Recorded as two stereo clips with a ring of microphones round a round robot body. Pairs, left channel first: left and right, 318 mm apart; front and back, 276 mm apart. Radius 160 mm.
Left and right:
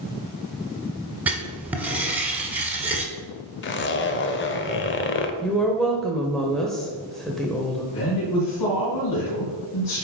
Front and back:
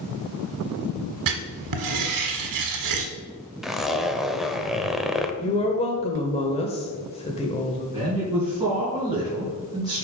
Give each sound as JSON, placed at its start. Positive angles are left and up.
{"t": 1.3, "sound": "writing", "azimuth_deg": -175, "distance_m": 1.2}
{"t": 3.6, "sound": "a zipper", "azimuth_deg": 90, "distance_m": 0.8}
{"t": 5.4, "sound": "a woman speaking", "azimuth_deg": 5, "distance_m": 1.0}
{"t": 7.9, "sound": "a man speaking", "azimuth_deg": 105, "distance_m": 3.0}